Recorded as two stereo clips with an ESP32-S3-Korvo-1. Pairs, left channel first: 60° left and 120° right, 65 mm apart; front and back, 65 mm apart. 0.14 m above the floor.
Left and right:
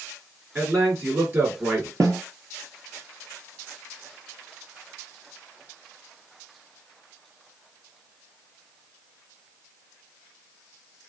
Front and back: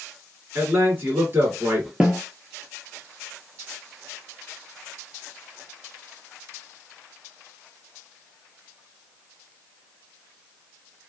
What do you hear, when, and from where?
0.6 s a man speaking: 155° right, 1.9 m
2.0 s a snare drum: 110° right, 0.7 m